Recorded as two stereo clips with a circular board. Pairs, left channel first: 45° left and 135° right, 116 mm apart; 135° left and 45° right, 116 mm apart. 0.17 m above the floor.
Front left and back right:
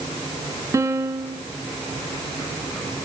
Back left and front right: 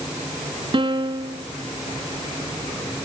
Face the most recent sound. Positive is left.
turn(degrees=-75)